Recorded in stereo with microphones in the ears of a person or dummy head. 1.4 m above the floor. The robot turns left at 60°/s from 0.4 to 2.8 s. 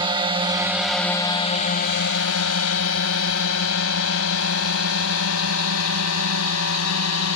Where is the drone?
20° right (ahead or behind); by 7.4 s 85° left.